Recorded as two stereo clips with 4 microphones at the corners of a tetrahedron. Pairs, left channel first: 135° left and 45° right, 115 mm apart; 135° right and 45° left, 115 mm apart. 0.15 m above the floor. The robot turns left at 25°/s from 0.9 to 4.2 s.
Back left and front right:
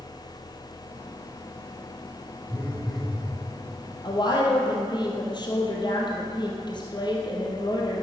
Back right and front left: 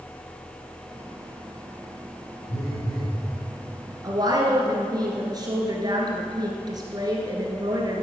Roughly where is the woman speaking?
Left.